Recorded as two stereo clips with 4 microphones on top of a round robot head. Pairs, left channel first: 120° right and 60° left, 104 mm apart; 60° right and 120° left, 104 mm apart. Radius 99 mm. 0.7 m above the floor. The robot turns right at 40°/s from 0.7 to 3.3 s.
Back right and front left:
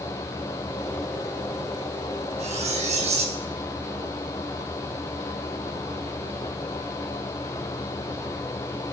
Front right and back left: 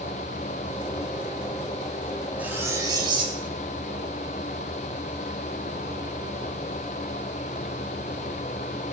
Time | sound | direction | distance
2.4 | cutlery clinking | 45° left | 4 m